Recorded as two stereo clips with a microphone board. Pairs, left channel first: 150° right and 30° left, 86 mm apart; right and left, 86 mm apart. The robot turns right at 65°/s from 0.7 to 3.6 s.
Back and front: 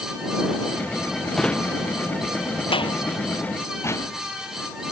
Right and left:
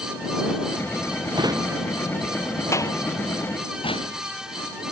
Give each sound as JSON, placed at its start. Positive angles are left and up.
{"t": 1.3, "sound": "a drawer", "azimuth_deg": 125}